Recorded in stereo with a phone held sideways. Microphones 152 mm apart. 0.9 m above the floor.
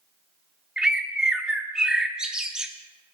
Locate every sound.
0.8 s a bird: 5° right (ahead or behind), 0.8 m